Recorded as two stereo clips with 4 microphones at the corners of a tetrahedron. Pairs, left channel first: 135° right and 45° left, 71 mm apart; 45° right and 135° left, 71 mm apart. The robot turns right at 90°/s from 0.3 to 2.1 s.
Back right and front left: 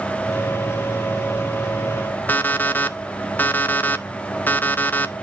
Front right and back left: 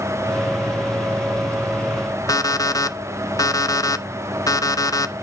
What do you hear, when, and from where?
2.3 s an alarm clock: 70° right, 0.9 m